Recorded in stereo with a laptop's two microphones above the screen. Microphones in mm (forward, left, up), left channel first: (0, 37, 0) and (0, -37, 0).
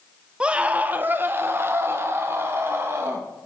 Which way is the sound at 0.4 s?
15° right (ahead or behind).